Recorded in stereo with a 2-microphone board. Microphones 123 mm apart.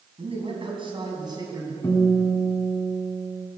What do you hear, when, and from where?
0.2 s a man speaking: 55° right (ahead or behind), 3.5 m; by 1.7 s 30° right (ahead or behind), 3.5 m
1.8 s a guitar: 20° left (ahead or behind), 3 m